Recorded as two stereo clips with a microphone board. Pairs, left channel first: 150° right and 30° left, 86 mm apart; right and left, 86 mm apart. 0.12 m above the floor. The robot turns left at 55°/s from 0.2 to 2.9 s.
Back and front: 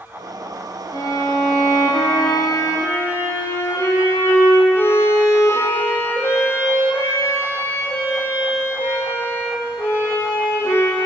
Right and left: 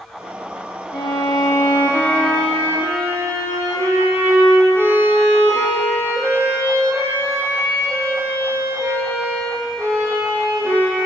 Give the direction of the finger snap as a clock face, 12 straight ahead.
I don't hear a finger snap.